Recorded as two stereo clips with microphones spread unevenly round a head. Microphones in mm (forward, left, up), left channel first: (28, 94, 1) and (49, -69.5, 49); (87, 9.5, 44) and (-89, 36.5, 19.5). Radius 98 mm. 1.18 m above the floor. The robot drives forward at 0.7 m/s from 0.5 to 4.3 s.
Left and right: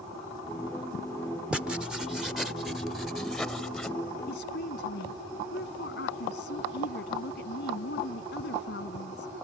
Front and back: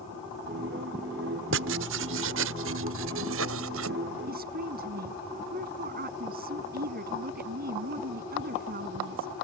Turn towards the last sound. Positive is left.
turn(degrees=135)